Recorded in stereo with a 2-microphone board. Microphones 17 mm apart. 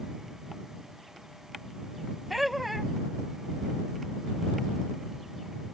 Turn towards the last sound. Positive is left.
turn(degrees=-5)  # may be behind; listen again after turning